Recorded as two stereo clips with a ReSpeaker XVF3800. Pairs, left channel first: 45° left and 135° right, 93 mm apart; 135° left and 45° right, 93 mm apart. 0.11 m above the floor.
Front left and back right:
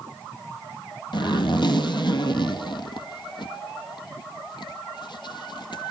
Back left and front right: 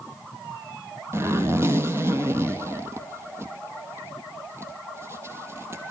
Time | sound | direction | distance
1.1 | a zipper | 15° left | 2.5 m